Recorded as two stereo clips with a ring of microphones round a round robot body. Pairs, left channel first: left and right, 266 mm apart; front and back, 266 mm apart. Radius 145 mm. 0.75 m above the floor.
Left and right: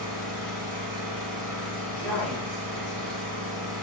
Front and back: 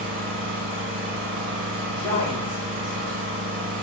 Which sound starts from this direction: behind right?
An engine running, at 0.0 s.